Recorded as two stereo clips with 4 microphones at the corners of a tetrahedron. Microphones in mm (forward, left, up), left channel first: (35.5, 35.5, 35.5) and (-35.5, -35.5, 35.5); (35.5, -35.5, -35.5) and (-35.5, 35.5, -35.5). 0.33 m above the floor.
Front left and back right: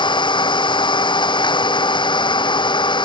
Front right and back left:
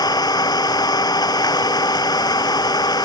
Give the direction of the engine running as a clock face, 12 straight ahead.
12 o'clock.